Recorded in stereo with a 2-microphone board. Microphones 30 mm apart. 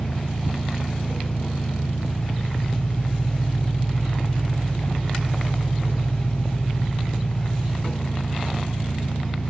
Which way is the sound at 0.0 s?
65° left (ahead or behind).